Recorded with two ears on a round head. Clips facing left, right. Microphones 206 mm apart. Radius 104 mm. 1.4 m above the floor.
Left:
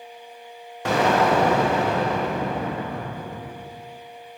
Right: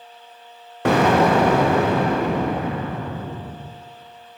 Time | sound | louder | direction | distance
0.8 | an explosion | right 4 dB | 45° right (ahead or behind) | 0.6 m